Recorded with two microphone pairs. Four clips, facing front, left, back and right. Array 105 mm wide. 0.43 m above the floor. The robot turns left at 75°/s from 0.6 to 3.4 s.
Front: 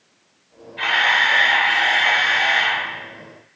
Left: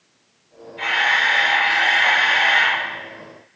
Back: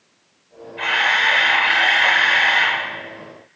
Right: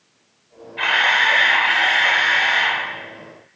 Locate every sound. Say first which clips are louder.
0.8 s a camera shutter: right 2 dB, front 1 dB; 95° right, 1.9 m; by 2.9 s 110° left, 1.9 m